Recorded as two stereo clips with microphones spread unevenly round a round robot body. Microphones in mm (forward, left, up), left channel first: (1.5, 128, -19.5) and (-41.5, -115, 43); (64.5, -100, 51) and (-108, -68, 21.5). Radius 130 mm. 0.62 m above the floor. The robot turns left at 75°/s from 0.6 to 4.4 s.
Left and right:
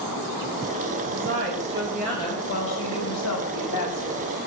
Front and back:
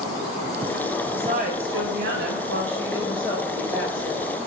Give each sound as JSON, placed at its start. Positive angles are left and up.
{"t": 1.1, "sound": "a woman speaking", "azimuth_deg": -130, "distance_m": 3.5}